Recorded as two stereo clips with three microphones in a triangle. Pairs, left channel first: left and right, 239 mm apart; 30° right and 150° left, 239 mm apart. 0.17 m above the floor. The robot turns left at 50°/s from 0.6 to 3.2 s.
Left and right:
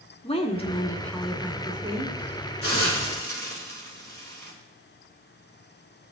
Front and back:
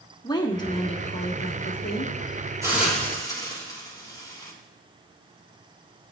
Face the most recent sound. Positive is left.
turn(degrees=45)